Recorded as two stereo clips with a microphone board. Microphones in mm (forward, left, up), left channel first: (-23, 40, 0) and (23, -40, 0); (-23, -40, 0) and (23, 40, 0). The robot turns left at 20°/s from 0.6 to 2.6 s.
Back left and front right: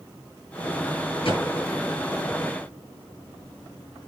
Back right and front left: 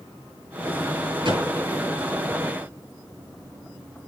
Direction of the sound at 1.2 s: 95° left.